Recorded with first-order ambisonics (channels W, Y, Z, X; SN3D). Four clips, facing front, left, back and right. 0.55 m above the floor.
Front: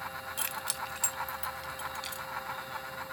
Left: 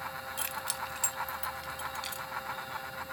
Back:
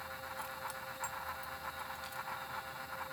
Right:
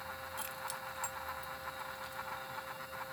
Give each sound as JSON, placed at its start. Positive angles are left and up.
{"t": 0.4, "sound": "keys jangling", "azimuth_deg": 30}